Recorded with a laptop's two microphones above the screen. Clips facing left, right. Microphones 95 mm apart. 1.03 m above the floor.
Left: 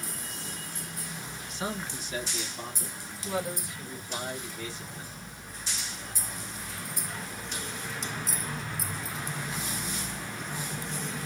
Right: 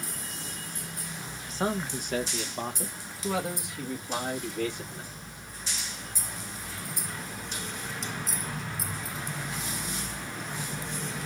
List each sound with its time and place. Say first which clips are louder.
1.5 s a man speaking: right 6 dB; 35° right (ahead or behind), 0.9 m; by 5.1 s 60° right (ahead or behind), 2 m